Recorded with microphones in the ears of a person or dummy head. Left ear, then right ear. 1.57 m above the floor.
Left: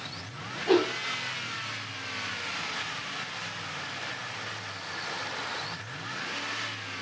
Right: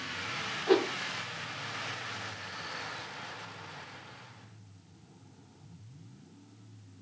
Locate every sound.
0.7 s a whoosh: 5° right (ahead or behind), 1.4 m